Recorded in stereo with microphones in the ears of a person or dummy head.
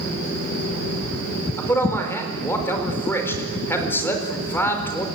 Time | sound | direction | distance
1.6 | a man speaking | 10° left (ahead or behind) | 4.5 m